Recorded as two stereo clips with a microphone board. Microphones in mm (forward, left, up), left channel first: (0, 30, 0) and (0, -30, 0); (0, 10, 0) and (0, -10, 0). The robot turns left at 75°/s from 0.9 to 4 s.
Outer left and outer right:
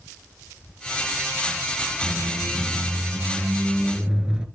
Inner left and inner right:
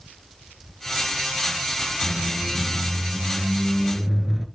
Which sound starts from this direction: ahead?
A squeak, at 2.0 s.